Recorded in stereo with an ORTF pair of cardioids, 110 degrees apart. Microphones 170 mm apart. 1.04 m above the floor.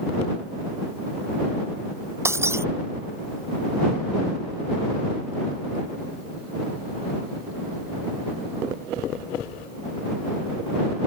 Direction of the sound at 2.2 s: 15° right.